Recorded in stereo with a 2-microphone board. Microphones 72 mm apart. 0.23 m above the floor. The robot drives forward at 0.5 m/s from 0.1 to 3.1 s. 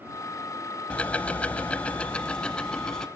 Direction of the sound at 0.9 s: 15° left (ahead or behind).